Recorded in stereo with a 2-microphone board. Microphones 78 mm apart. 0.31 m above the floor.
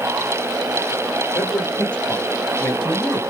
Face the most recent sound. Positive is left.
turn(degrees=20)  # may be behind; listen again after turning